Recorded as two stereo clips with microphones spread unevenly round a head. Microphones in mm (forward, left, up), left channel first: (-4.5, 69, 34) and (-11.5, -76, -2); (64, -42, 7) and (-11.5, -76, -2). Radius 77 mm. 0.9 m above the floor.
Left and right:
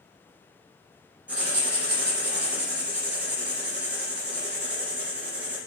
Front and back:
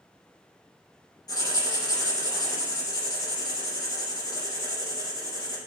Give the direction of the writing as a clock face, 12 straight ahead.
12 o'clock.